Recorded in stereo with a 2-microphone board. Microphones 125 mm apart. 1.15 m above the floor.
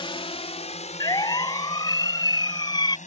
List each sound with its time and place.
0.0 s a drone: 45° left (ahead or behind); by 3.1 s 80° left
1.0 s a siren: 30° left (ahead or behind); by 3.0 s 35° left (ahead or behind)